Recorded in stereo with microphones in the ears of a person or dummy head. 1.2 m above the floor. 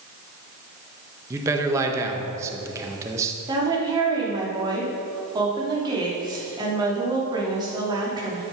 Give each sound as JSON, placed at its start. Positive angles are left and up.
{"t": 1.3, "sound": "a man speaking", "side_deg": -20, "distance_m": 1.5}
{"t": 3.5, "sound": "a woman speaking", "side_deg": -25, "distance_m": 3.0}